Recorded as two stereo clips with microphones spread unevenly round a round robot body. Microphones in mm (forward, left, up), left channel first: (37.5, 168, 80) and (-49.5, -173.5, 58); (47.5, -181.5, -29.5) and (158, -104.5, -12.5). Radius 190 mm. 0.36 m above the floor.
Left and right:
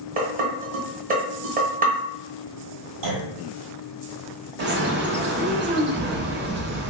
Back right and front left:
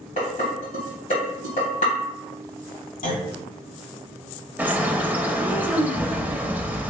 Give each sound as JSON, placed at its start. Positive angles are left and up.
{"t": 0.2, "sound": "dishes clattering", "azimuth_deg": -170, "distance_m": 1.0}
{"t": 3.0, "sound": "a clunk", "azimuth_deg": -135, "distance_m": 1.9}
{"t": 4.6, "sound": "a bird", "azimuth_deg": -50, "distance_m": 0.6}